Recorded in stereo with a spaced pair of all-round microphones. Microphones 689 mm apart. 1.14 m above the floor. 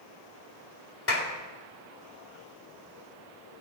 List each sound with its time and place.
1.1 s a clap: 60° left (ahead or behind), 1.9 m